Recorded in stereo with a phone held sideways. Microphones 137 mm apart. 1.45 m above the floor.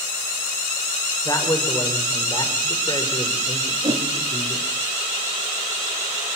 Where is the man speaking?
25° left (ahead or behind), 6.5 m; by 4.7 s 40° left (ahead or behind), 5.5 m.